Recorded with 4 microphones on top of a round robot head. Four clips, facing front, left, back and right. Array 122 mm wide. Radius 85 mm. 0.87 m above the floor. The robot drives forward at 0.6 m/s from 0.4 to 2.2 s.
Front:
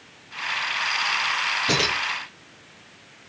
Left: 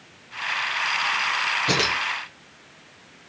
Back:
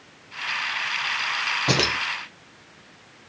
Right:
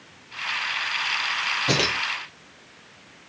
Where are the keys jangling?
170° left, 1.4 m.